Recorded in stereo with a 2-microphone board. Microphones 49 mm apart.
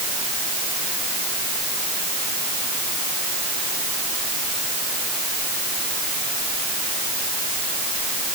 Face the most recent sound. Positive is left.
No sound to turn to.